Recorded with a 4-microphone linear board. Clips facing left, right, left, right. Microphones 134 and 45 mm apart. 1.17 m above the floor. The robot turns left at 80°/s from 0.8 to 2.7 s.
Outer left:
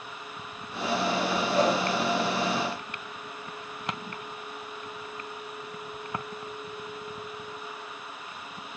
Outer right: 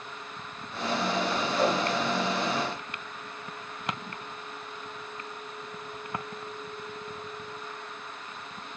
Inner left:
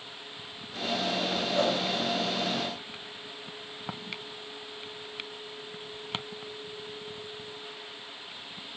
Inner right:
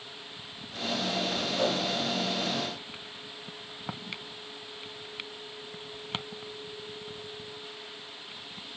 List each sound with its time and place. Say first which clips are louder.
1.5 s a whoosh: outer left 2 dB, inner left 2 dB; 45° left (ahead or behind), 1.2 m